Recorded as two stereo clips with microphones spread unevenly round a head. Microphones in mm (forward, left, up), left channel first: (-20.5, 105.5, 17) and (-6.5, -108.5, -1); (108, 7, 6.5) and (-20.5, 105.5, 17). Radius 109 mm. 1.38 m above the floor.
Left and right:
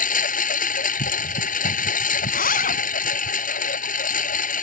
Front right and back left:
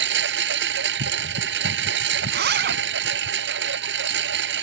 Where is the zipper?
140° left.